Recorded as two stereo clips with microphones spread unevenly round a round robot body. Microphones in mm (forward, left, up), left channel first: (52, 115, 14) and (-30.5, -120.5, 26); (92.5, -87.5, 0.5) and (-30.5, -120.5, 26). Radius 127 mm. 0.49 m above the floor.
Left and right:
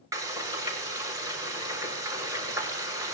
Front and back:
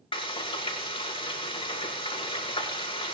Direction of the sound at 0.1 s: 30° right.